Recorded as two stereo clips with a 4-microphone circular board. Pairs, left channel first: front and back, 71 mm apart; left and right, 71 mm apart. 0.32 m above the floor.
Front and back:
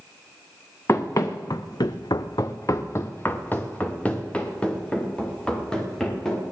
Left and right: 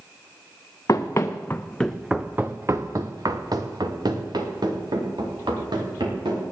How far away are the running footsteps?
About 1.6 m.